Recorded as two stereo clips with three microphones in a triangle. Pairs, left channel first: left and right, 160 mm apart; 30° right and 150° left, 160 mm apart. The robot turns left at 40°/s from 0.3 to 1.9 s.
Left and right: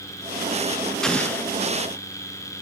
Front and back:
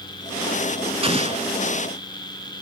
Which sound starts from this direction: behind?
An explosion, at 1.0 s.